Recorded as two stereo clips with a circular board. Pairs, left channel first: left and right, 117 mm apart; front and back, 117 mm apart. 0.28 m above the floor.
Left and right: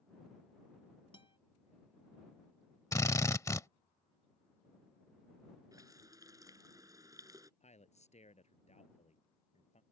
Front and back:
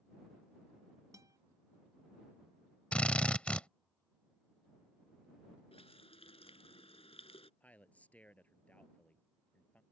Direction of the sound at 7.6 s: 80° left.